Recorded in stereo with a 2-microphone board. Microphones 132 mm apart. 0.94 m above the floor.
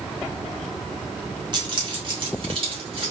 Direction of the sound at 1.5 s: 35° right (ahead or behind).